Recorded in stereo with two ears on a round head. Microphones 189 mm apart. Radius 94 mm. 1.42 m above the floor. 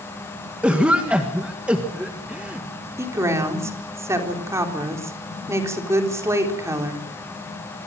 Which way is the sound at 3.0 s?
15° right (ahead or behind).